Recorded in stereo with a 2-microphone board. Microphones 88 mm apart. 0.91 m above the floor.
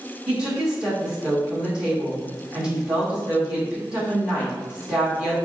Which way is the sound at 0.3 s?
15° right (ahead or behind).